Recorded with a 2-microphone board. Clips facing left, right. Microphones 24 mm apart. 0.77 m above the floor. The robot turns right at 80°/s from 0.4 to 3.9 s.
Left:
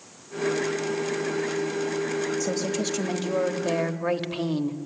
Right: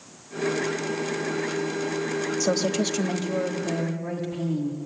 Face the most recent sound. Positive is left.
turn(degrees=65)